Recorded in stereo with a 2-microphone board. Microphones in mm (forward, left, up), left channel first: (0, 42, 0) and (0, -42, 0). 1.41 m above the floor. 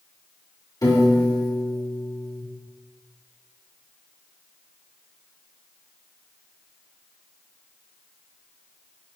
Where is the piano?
45° left (ahead or behind), 2 m.